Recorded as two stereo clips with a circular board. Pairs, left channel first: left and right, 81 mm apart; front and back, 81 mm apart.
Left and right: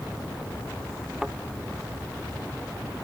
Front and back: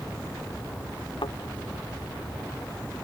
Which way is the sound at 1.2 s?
10° right.